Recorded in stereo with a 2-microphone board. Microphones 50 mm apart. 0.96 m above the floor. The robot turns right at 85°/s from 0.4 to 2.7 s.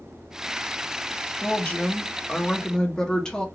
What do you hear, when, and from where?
1.4 s a woman speaking: 40° left, 0.7 m; by 3.5 s 150° left, 0.7 m